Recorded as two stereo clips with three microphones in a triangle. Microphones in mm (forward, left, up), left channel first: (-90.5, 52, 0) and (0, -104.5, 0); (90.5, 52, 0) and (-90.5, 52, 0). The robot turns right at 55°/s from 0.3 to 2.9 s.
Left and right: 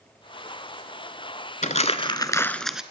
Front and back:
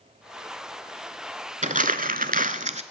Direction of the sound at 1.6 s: 150° left.